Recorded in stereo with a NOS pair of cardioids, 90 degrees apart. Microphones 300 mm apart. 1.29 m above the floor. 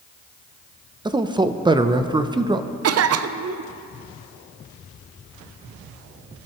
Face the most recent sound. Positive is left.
turn(degrees=-55)